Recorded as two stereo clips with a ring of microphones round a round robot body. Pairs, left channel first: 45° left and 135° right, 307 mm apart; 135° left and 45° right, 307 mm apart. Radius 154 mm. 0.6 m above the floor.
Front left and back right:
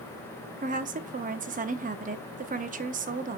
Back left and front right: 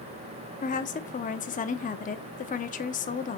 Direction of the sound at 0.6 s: Straight behind.